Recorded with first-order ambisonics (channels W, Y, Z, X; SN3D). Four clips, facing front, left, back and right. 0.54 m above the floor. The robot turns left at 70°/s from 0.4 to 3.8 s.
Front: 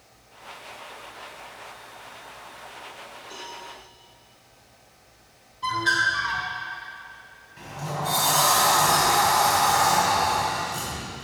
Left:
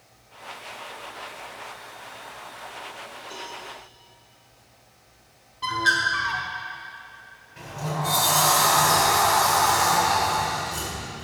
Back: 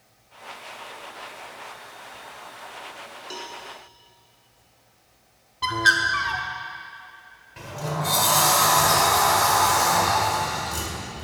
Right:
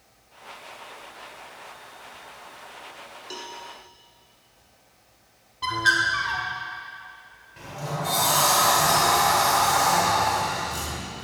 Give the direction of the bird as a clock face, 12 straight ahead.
6 o'clock.